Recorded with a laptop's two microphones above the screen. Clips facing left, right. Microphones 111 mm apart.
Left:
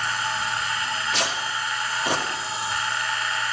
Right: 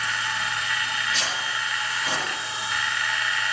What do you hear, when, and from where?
0.0 s a machine running: 35° left (ahead or behind), 1.6 m
1.1 s tearing paper: 70° left (ahead or behind), 2.5 m